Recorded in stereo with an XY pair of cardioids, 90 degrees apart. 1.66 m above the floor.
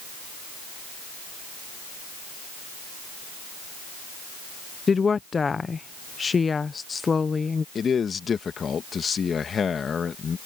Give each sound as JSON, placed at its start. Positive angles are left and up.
{"t": 4.9, "sound": "a woman speaking", "azimuth_deg": 35}
{"t": 7.8, "sound": "a man speaking", "azimuth_deg": 50}